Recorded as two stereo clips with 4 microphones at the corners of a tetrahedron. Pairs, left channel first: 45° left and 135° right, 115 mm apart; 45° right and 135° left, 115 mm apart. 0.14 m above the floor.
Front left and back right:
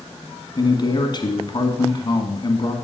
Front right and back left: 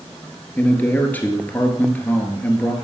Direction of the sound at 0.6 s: 25° left.